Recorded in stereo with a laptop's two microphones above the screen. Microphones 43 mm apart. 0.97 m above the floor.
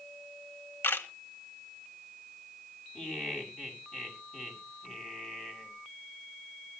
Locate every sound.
0.8 s a camera shutter: 70° left (ahead or behind), 1.3 m
3.0 s laughter: 15° left (ahead or behind), 6.5 m